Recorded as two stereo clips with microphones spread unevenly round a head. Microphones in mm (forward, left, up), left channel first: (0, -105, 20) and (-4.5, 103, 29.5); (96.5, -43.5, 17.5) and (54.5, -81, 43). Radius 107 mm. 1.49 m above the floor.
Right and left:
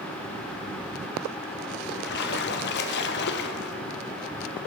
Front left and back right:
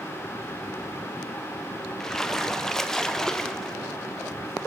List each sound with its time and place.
2.0 s a splash: 60° right, 0.5 m